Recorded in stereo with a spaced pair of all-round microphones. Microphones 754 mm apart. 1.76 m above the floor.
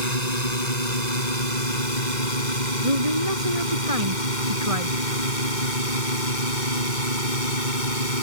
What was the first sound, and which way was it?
A drone, 60° left (ahead or behind).